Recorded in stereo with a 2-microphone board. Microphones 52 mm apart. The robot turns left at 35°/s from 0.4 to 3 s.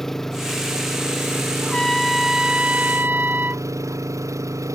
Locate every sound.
0.0 s an engine running: 5° left; by 4.8 s 85° right
1.6 s a trumpet: 10° left; by 3.6 s 35° right